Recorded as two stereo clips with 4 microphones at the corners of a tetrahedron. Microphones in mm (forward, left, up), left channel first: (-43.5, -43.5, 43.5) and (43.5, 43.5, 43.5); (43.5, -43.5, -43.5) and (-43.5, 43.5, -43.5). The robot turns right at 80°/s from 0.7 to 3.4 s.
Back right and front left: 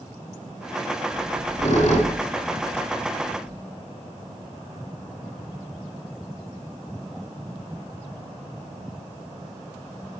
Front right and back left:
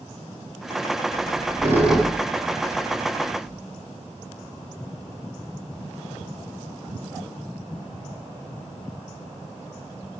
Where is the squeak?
155° left, 4 m; by 3.6 s 20° right, 4 m.